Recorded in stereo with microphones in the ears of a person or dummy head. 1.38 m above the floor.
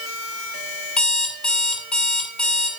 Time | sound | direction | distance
1.0 | an alarm clock | 5° left (ahead or behind) | 3.5 m